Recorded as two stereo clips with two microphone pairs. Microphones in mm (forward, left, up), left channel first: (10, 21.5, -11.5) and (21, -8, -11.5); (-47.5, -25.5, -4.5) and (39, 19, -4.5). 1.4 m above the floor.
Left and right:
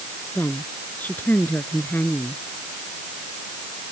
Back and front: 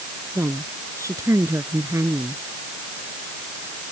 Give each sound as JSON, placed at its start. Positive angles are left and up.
{"t": 0.3, "sound": "a woman speaking", "azimuth_deg": 85}